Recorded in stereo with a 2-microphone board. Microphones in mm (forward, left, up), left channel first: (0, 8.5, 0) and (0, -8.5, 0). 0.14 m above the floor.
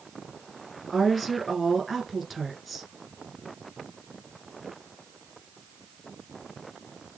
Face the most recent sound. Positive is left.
turn(degrees=0)  # may be behind; listen again after turning